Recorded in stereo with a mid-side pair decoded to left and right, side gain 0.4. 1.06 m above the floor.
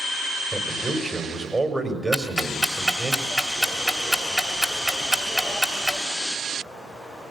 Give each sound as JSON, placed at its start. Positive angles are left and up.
{"t": 0.5, "sound": "a man speaking", "azimuth_deg": -30, "distance_m": 4.5}
{"t": 2.1, "sound": "ticking", "azimuth_deg": -5, "distance_m": 3.0}